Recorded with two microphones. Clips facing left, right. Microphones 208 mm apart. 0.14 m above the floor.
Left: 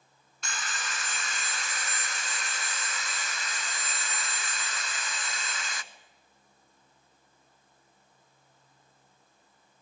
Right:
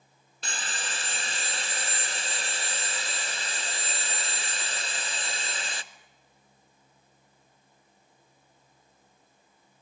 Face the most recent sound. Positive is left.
turn(degrees=-30)  # may be behind; listen again after turning